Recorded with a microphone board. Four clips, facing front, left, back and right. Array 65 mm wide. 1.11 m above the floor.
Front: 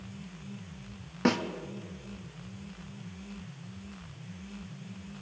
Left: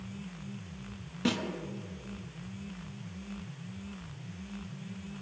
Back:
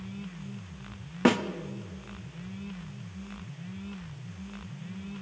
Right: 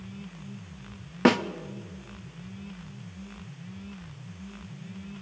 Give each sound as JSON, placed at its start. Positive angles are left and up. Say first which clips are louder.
{"t": 1.2, "sound": "a snare drum", "louder": "right 10 dB, back 4 dB", "azimuth_deg": -105, "distance_m": 0.7}